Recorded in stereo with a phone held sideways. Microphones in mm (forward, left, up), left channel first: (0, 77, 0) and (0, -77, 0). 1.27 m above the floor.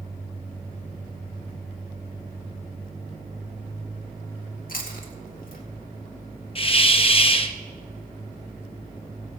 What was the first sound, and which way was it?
Chewing, 65° left (ahead or behind).